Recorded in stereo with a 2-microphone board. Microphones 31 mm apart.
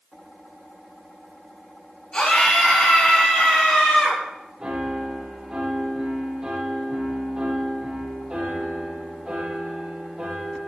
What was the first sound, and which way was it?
A scream, 30° left (ahead or behind).